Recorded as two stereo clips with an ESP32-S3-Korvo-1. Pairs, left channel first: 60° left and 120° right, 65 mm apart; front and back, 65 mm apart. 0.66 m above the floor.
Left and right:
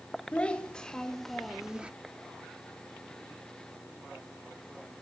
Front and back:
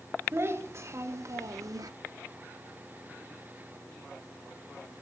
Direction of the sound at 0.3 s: 135° left.